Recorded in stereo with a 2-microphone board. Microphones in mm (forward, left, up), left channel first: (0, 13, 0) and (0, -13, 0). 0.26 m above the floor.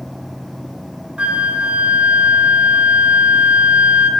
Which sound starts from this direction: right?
A flute, at 1.2 s.